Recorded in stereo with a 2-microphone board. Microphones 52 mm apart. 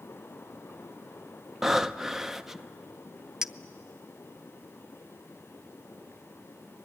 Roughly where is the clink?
Centre.